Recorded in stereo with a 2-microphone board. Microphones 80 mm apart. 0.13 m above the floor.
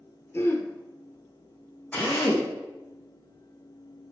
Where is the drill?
20° left (ahead or behind), 3.5 m.